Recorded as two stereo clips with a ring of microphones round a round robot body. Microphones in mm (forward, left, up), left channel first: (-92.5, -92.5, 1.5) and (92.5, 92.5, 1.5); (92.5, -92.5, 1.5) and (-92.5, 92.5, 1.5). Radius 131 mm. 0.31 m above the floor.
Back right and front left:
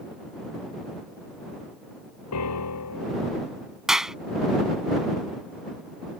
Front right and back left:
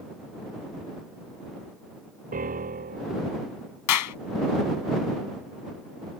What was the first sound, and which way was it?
A piano, 165° right.